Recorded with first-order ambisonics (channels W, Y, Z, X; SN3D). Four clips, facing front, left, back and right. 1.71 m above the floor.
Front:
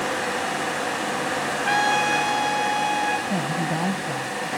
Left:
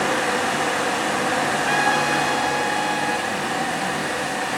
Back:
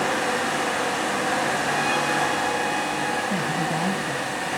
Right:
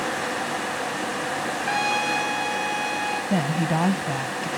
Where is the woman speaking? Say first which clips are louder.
Even, even; 80° right, 1.2 m.